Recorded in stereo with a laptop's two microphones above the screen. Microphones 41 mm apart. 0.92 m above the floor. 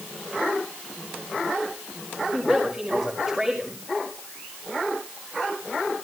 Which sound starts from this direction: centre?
A woman speaking, at 2.3 s.